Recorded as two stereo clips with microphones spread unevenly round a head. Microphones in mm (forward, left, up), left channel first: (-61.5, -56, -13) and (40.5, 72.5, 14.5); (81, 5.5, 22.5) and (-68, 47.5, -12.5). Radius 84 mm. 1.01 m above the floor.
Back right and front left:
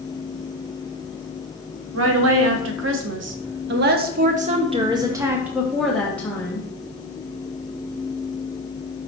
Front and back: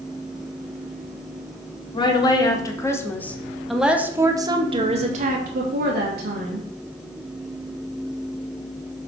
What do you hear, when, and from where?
1.9 s a woman speaking: 45° left, 1.6 m; by 6.7 s 160° left, 1.4 m